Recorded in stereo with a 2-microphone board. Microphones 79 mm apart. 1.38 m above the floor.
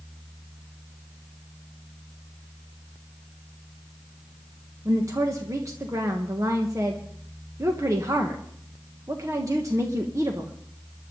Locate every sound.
4.8 s a woman speaking: 40° right (ahead or behind), 1.5 m